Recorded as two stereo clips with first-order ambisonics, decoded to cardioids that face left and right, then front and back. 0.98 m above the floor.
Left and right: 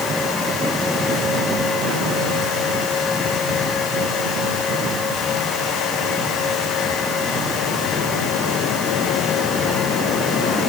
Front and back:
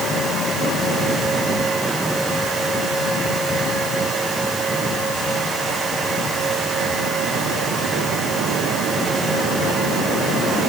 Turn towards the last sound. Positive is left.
No sound to turn to.